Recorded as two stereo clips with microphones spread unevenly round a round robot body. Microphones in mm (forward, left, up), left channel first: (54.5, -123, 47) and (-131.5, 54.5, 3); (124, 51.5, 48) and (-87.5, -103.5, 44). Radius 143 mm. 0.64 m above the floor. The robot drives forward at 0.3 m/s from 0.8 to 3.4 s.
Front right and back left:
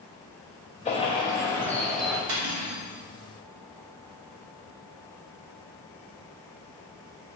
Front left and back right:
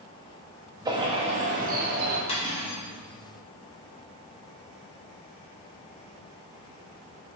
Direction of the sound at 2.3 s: 105° left.